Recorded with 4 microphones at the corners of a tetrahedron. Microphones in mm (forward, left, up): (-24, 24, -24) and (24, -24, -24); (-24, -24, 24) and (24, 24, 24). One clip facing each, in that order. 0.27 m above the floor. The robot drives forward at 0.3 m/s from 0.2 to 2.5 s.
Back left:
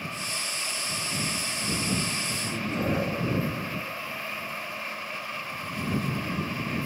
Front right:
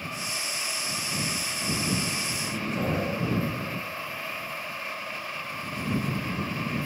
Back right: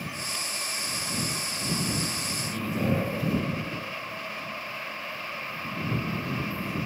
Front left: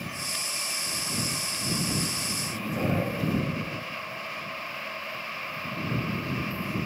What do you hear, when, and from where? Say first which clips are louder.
2.4 s a man speaking: even, back right 1 dB; 10° left, 1.4 m